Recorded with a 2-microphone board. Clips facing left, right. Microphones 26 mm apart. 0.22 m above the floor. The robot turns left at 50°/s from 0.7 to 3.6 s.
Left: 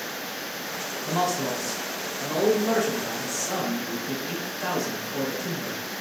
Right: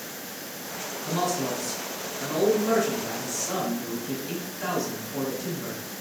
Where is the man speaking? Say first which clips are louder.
Left 1 dB; 20° left (ahead or behind), 1.7 m; by 5.8 s centre (ahead or behind), 1.7 m.